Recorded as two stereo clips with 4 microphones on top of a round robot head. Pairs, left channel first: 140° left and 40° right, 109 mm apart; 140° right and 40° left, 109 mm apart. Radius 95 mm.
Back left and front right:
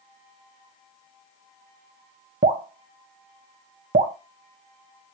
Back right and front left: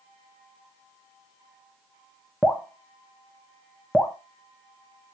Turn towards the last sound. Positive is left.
turn(degrees=-50)